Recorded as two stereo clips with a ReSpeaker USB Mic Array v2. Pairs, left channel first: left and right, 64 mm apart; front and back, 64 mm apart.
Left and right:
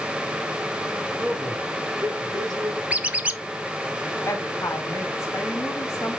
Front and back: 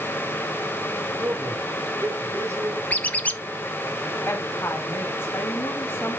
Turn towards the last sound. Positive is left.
turn(degrees=45)